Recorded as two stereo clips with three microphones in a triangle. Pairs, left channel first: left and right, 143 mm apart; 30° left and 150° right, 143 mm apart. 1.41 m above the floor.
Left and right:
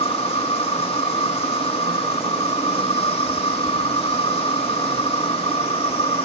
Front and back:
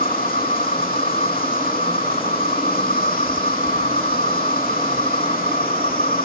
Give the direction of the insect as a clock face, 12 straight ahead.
11 o'clock.